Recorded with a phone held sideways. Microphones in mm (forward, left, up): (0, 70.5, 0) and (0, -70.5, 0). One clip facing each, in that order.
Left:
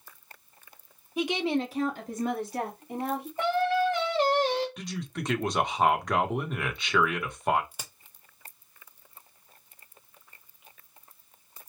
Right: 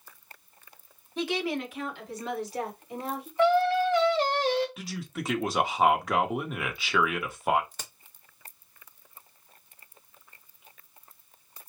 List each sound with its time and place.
1.2 s a woman speaking: 10° left (ahead or behind), 0.8 m; by 3.3 s 65° left (ahead or behind), 2 m
3.4 s singing: 50° left (ahead or behind), 1.6 m
4.8 s a man speaking: 5° right (ahead or behind), 0.8 m
7.7 s a crack: 10° left (ahead or behind), 0.6 m